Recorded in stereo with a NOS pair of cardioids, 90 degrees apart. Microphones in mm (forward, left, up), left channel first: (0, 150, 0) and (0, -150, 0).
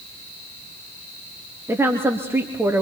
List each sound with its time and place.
1.7 s a woman speaking: 10° right, 2.5 m